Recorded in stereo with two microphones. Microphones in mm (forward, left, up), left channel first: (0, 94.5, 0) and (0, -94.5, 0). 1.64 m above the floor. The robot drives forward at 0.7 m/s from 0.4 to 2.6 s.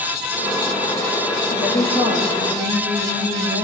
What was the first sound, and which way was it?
A woman speaking, 65° left (ahead or behind).